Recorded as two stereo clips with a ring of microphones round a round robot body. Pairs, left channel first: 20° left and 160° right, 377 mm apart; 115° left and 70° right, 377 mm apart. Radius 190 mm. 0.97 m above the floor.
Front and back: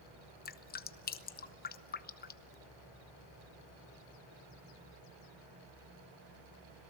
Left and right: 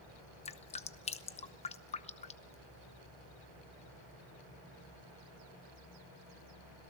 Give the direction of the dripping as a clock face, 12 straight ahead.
10 o'clock.